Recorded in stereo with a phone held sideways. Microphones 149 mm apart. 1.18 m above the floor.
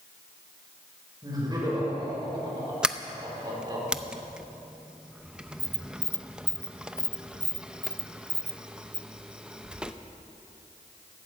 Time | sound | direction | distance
1.2 | laughter | 25° right (ahead or behind) | 5.5 m
2.8 | a sliding door | 5° right (ahead or behind) | 0.6 m